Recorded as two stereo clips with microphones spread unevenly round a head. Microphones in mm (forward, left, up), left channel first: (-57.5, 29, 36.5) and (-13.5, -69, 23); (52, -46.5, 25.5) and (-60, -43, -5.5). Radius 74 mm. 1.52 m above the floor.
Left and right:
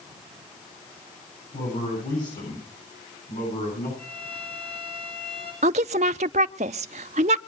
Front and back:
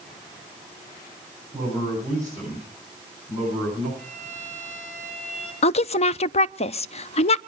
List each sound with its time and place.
1.5 s a man speaking: 105° left, 10 m
4.0 s a violin: 75° left, 9 m
5.6 s a woman speaking: 25° right, 0.6 m